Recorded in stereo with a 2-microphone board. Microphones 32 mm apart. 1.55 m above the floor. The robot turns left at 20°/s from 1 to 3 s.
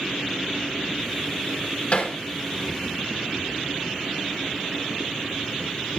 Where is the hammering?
50° left (ahead or behind), 1.9 m; by 2.2 s 45° left (ahead or behind), 1.9 m.